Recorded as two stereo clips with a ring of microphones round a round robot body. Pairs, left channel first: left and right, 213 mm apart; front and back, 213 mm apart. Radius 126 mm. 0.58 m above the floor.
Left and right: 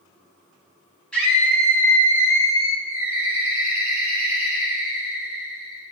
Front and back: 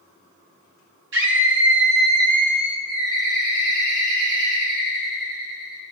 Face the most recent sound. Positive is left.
turn(degrees=-170)